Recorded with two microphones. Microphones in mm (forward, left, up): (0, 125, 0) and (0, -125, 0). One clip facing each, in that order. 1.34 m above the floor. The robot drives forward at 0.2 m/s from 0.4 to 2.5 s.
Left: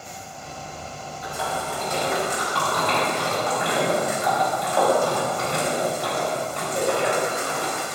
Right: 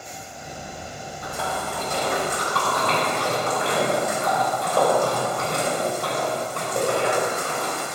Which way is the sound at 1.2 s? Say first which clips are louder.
Even; 55° right (ahead or behind).